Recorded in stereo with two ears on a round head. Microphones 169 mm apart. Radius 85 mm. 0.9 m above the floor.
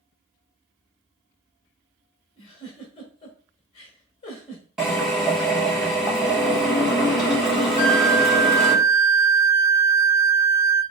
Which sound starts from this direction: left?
A giggle, at 2.4 s.